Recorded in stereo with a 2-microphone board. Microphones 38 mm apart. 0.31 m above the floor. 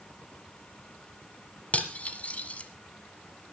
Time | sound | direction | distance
1.7 | cutlery clinking | 30° left (ahead or behind) | 1.4 m